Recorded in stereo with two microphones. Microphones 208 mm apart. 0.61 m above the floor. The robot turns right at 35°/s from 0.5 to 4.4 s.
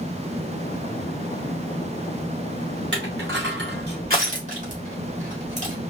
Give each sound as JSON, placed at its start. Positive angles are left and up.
{"t": 2.9, "sound": "crushing", "side_deg": -65, "distance_m": 2.5}